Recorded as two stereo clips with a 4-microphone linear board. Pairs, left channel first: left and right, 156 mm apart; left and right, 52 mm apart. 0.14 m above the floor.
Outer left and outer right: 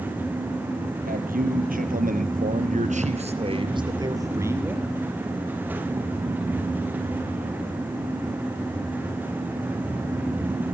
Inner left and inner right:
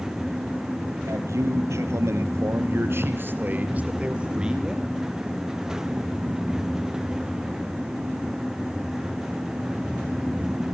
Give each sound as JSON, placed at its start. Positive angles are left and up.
{"t": 1.1, "sound": "a man speaking", "side_deg": -65, "distance_m": 4.5}